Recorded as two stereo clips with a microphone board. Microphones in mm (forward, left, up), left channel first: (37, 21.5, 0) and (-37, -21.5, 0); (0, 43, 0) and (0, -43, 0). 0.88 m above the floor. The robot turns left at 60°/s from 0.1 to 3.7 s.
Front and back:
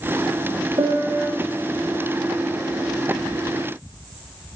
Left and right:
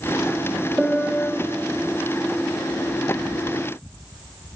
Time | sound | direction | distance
0.8 | a piano | straight behind | 2.5 m